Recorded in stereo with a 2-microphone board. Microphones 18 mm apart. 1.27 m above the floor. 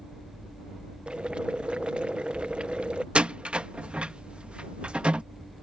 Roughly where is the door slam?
Right.